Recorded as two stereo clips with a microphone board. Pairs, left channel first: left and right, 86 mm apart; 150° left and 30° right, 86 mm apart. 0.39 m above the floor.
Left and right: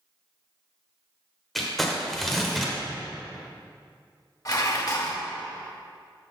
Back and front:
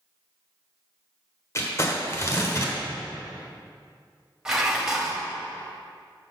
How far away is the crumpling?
About 1.2 m.